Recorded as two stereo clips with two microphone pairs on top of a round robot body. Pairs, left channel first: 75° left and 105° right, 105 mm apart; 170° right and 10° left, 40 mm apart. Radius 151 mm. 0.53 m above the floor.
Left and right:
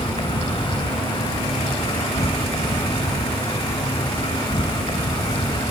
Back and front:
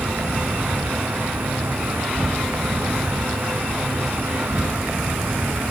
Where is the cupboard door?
I don't hear a cupboard door.